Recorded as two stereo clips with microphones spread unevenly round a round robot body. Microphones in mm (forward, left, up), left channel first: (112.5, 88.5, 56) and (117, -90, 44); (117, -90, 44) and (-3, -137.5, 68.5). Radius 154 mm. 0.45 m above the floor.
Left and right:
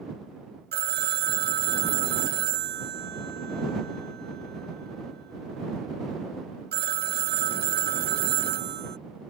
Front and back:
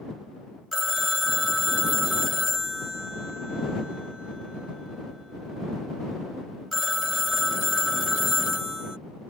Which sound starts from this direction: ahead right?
A phone ringing, at 0.7 s.